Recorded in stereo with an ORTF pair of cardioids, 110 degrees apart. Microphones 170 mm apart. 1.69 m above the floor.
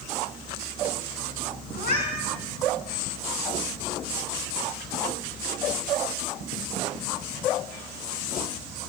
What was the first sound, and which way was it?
A cat meowing, 65° left.